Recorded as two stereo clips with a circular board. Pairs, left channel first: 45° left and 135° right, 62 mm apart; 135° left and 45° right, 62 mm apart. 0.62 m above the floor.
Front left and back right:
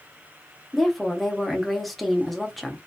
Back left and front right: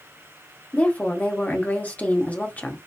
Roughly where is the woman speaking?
Behind left.